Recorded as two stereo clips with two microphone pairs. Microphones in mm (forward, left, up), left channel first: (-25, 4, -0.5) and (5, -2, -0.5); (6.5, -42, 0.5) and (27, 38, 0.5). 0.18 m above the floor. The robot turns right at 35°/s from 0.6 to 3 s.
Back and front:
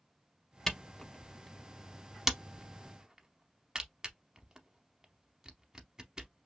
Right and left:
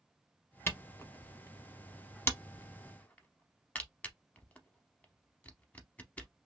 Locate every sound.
0.7 s a camera shutter: 130° right, 0.6 m; by 6.3 s 50° right, 0.6 m